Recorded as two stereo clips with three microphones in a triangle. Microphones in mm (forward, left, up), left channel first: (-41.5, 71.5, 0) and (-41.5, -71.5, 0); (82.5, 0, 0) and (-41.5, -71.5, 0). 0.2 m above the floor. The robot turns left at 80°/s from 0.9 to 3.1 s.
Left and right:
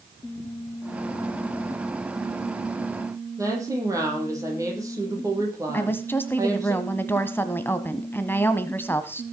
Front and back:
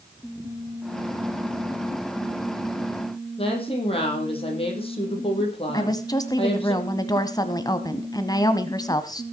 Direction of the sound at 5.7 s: 35° left.